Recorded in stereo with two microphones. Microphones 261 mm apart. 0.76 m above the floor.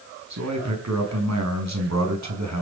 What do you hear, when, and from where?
0.3 s a man speaking: 85° right, 6 m